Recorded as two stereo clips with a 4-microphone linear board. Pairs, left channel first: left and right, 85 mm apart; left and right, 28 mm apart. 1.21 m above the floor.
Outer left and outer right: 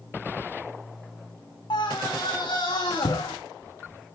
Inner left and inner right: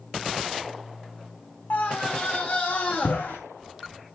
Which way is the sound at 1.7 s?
70° left (ahead or behind).